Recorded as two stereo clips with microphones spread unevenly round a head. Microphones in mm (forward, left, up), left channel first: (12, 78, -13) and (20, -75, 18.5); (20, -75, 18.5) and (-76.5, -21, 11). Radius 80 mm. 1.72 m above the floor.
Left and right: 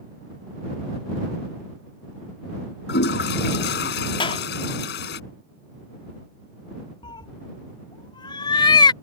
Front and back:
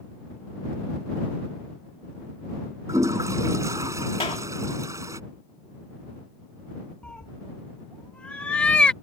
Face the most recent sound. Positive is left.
turn(degrees=35)